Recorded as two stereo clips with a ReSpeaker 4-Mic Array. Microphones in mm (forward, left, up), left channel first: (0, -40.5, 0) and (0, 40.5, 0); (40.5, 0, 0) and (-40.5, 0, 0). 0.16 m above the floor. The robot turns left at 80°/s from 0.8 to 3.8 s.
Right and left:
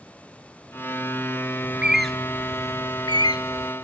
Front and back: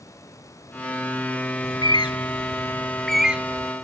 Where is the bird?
30° left, 0.6 m; by 3.7 s 135° right, 0.6 m.